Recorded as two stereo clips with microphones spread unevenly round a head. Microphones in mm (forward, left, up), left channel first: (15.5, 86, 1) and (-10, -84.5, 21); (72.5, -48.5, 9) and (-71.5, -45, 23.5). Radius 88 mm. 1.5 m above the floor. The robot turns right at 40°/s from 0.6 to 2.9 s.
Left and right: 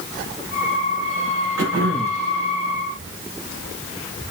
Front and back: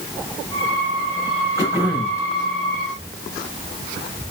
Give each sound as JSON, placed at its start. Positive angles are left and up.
{"t": 1.6, "sound": "throat clearing", "azimuth_deg": -120, "distance_m": 8.0}